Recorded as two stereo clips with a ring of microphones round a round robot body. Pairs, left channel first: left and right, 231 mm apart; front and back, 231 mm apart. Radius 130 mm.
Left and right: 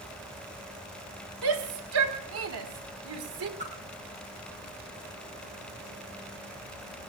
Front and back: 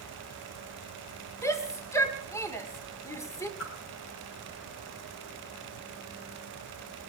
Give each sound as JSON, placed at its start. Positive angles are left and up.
{"t": 1.4, "sound": "a shout", "azimuth_deg": -75, "distance_m": 1.8}
{"t": 3.6, "sound": "a whoosh", "azimuth_deg": -25, "distance_m": 3.0}